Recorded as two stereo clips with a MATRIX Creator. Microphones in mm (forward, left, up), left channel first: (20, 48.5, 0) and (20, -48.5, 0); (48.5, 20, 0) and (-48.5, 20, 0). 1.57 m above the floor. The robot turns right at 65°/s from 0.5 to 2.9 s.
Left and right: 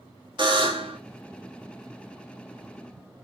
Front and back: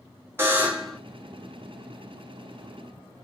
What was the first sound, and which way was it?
A buzzer, 115° right.